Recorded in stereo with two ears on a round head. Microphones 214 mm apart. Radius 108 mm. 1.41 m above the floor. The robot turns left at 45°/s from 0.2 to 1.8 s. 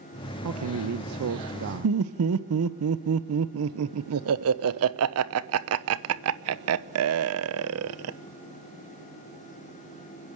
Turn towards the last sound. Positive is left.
turn(degrees=-70)  # may be behind; listen again after turning